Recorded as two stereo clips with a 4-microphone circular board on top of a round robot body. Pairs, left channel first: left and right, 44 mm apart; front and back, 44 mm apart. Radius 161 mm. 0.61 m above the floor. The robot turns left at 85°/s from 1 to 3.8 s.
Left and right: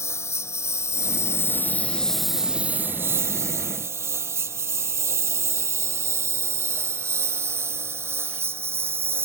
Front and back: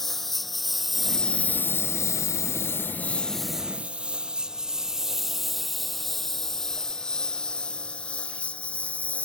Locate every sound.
0.0 s a lawn mower: 85° left; by 9.2 s 60° right